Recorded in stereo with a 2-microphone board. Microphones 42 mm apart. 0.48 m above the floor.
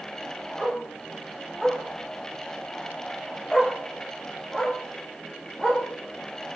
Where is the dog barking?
Centre (ahead or behind), 9.5 m; by 5.8 s 15° left (ahead or behind), 9.5 m.